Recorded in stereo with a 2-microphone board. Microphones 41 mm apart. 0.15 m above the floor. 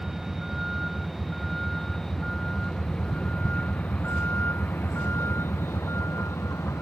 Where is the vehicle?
10° right (ahead or behind); by 6.8 s 80° left.